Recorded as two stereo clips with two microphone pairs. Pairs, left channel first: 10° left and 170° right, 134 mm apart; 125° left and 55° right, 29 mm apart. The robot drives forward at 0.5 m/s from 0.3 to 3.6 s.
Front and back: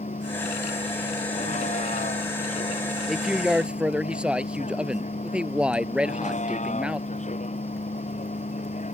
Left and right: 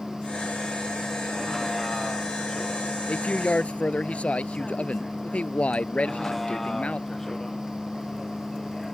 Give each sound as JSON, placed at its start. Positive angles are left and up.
{"t": 0.0, "sound": "a vehicle", "azimuth_deg": 35}
{"t": 3.1, "sound": "a man speaking", "azimuth_deg": 100}